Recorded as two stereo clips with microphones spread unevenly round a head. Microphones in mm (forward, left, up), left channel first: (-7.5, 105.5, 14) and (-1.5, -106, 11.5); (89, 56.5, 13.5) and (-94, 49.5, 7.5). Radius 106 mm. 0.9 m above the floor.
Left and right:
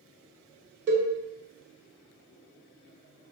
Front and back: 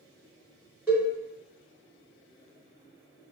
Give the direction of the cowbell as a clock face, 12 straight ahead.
3 o'clock.